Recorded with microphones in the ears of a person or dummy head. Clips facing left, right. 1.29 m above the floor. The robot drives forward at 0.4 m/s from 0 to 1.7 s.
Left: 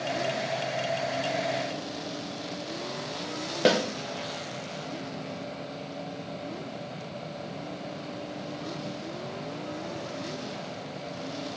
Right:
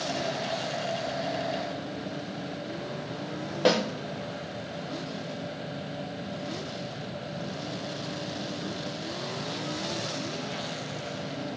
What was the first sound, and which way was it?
A snare drum, 20° left (ahead or behind).